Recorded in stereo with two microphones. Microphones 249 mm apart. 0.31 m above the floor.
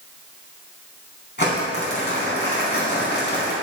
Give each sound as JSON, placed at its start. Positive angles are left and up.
{"t": 1.4, "sound": "crumpling", "side_deg": 45, "distance_m": 3.0}